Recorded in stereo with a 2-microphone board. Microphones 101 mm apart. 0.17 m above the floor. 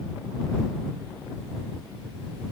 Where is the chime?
No chime in this recording.